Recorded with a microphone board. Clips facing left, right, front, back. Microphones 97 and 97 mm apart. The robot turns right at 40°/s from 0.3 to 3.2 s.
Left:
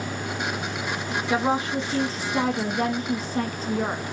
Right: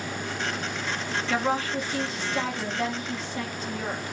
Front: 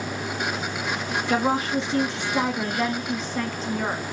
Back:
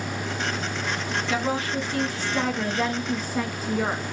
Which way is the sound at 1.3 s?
25° left.